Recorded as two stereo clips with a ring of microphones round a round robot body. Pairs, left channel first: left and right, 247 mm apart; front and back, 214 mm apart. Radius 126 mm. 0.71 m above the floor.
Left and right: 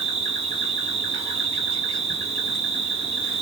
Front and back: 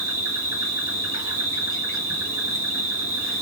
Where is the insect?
115° right, 1.3 m.